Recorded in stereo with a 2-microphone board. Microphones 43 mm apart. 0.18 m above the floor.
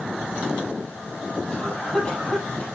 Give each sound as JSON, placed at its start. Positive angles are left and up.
{"t": 1.5, "sound": "a cough", "side_deg": 20, "distance_m": 5.0}